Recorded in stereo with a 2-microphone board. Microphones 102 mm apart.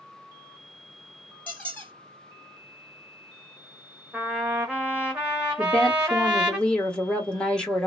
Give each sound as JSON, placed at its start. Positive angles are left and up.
{"t": 1.5, "sound": "a squeak", "side_deg": 15, "distance_m": 0.8}
{"t": 4.1, "sound": "a trumpet", "side_deg": -10, "distance_m": 0.8}
{"t": 5.6, "sound": "a woman speaking", "side_deg": 10, "distance_m": 1.0}